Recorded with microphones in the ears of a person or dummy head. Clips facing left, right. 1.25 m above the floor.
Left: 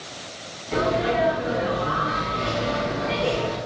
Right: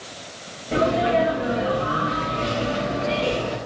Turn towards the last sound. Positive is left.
turn(degrees=-50)  # may be behind; listen again after turning